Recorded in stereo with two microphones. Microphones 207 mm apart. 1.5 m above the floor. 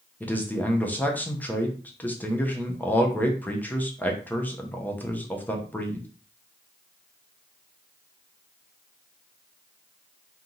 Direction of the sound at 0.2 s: 10° left (ahead or behind).